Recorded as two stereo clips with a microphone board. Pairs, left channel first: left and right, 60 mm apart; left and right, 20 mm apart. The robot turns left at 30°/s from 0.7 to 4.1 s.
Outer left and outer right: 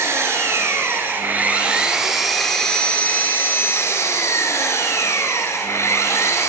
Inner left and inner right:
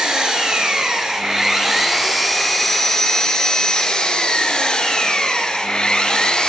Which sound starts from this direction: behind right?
An engine running, at 0.0 s.